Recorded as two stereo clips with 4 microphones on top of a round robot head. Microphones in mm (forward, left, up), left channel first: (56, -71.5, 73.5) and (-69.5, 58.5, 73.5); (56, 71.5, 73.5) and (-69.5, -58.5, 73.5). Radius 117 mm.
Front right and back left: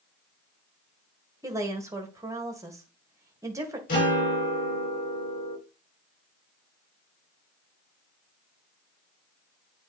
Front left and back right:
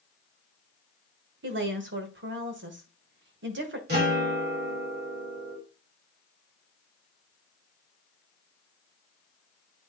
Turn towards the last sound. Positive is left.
turn(degrees=-95)